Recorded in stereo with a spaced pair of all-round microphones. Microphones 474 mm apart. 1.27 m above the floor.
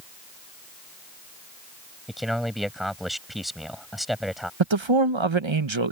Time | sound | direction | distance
2.1 | a man speaking | centre (ahead or behind) | ?
4.6 | a man speaking | 70° right (ahead or behind) | ?